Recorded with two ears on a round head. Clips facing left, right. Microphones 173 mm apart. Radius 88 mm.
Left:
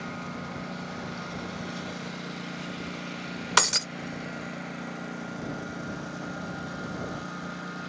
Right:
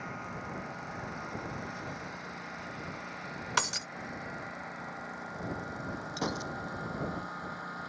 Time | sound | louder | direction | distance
0.0 | a lawn mower | left 5 dB | 45° left (ahead or behind) | ?
3.6 | breaking glass | left 7 dB | 60° left (ahead or behind) | ?
6.2 | a gunshot | right 1 dB | 75° right (ahead or behind) | ?